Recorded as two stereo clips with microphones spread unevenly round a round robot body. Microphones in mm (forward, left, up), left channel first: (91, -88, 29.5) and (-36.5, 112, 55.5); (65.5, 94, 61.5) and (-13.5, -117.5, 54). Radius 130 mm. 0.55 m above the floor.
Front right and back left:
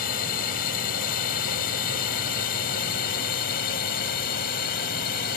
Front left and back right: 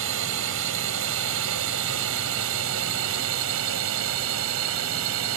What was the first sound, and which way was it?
A drone, 105° right.